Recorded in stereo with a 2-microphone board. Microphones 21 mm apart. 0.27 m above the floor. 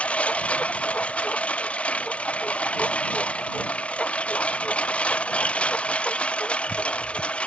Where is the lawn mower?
85° left; by 7.5 s 70° left (ahead or behind).